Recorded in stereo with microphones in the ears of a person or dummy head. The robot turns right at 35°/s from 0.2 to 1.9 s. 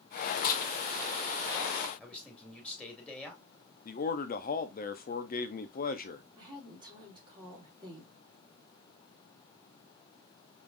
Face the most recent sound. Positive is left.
turn(degrees=-25)  # may be behind; listen again after turning